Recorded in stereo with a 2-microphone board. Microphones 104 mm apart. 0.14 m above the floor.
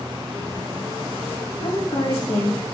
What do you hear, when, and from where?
1.6 s a woman speaking: 75° left (ahead or behind), 5.5 m